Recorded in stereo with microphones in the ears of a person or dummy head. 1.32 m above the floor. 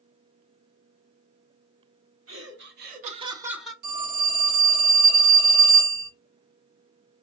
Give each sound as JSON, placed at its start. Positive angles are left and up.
{"t": 2.3, "sound": "laughter", "side_deg": -70, "distance_m": 1.0}
{"t": 3.8, "sound": "a phone ringing", "side_deg": -60, "distance_m": 1.1}